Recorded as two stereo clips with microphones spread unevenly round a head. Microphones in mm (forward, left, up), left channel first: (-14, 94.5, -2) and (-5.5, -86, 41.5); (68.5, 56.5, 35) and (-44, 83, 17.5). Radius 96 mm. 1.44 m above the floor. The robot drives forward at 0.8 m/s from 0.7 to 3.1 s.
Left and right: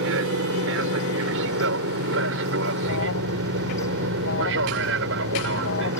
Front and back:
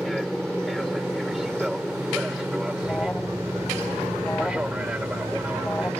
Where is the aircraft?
105° right; by 6.0 s 110° right.